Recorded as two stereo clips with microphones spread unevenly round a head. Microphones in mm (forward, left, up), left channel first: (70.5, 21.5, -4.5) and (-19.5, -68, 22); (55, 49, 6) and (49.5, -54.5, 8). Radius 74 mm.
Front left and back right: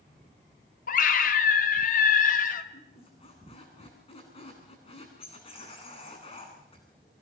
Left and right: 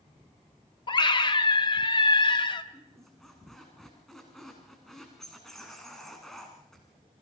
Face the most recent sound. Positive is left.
turn(degrees=0)